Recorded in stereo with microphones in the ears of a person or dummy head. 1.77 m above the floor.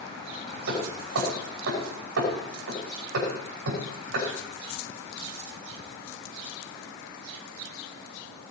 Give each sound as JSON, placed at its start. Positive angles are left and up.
{"t": 0.7, "sound": "hammering", "side_deg": -85, "distance_m": 6.5}